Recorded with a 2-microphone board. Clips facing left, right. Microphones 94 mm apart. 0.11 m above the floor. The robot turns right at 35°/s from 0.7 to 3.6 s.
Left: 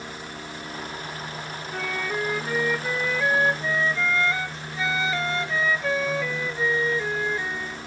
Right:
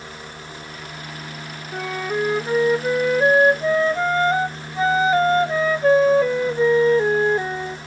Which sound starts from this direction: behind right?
A flute, at 1.7 s.